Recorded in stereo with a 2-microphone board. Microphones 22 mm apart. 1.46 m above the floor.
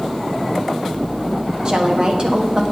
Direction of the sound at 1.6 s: 40° right (ahead or behind).